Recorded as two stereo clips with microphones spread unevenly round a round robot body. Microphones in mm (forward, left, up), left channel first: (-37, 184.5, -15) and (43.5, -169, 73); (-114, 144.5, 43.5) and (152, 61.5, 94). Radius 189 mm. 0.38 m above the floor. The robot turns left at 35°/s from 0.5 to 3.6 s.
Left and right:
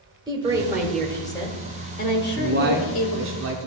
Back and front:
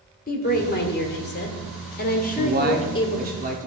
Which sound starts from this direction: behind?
A woman speaking, at 0.3 s.